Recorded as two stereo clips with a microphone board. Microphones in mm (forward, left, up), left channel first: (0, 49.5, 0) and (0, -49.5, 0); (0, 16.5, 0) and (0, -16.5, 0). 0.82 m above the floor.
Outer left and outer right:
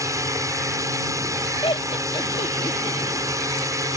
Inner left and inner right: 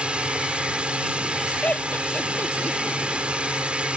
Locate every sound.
0.0 s a drone: 35° right (ahead or behind)
1.6 s laughter: 60° left (ahead or behind)